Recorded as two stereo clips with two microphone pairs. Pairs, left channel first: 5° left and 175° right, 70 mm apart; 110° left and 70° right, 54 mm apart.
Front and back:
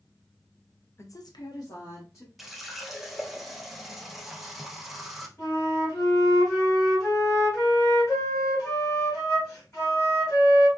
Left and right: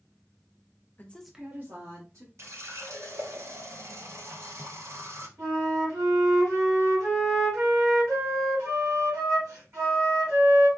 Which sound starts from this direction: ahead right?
A flute, at 5.4 s.